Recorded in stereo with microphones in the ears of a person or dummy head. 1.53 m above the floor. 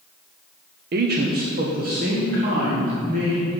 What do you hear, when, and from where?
0.9 s a man speaking: 50° right (ahead or behind), 0.6 m; by 3.5 s 45° right (ahead or behind), 3 m